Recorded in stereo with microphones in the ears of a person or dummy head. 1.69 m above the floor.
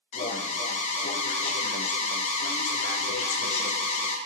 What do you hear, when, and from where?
0.1 s an alarm: 35° left (ahead or behind), 0.8 m